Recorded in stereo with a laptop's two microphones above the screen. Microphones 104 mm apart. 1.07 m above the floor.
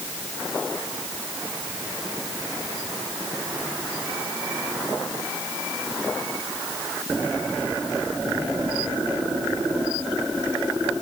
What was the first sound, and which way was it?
Only background noise.